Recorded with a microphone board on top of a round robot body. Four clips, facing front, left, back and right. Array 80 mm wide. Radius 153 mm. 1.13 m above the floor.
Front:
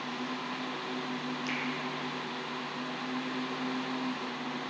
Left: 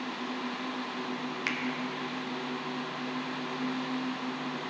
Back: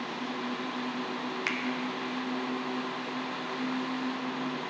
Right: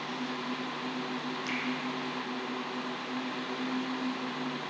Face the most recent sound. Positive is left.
turn(degrees=140)